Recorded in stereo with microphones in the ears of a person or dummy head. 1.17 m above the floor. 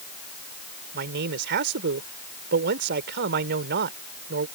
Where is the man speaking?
55° right (ahead or behind).